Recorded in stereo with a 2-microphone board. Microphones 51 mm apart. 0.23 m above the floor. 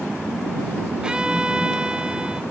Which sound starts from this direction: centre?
A violin, at 1.0 s.